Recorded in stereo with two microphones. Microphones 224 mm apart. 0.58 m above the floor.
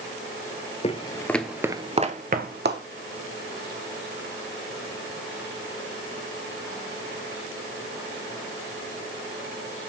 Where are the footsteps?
30° left (ahead or behind), 0.6 m; by 2.8 s 55° right (ahead or behind), 0.9 m.